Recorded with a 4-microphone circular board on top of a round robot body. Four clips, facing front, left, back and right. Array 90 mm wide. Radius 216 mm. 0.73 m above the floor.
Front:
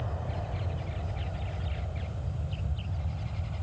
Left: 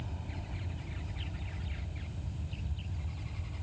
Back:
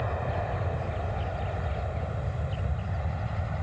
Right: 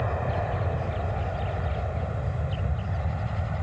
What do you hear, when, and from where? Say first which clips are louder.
0.0 s an aircraft: right 17 dB, back 7 dB; 115° right; by 3.6 s 120° right